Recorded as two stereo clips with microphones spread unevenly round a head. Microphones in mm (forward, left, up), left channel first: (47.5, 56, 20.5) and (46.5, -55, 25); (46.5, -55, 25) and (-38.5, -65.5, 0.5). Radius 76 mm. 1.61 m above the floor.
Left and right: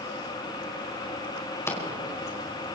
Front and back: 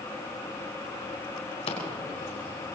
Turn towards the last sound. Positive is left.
turn(degrees=25)